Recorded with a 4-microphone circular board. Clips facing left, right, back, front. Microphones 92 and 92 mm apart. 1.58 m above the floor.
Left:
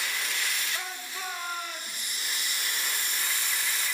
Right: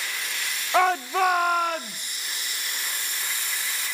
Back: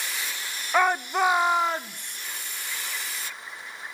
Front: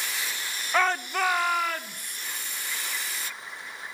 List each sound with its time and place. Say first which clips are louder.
0.7 s a shout: right 17 dB, back 3 dB; 105° right, 0.7 m; by 2.2 s 115° right, 1.6 m